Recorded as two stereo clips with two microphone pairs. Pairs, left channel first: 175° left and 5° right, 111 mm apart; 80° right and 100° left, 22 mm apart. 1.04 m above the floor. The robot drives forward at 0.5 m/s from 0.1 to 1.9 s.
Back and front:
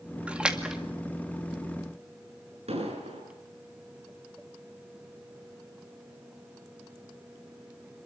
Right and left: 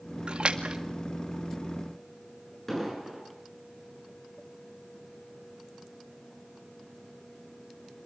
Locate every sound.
0.3 s a splash: 70° left, 2 m; by 0.8 s 80° left, 2 m
2.7 s an explosion: straight ahead, 7 m